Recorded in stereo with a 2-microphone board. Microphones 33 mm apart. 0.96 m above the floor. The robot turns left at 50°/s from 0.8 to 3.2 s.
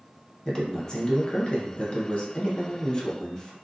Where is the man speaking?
145° left, 0.7 m; by 3.5 s 25° left, 0.7 m.